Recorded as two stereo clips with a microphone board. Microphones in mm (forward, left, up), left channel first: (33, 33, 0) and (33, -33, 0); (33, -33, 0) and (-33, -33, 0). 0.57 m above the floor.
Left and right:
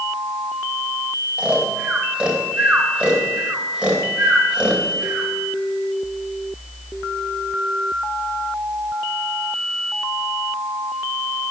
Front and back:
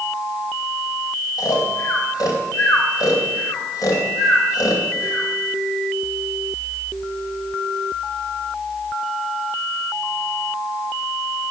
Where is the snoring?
15° right, 2.5 m.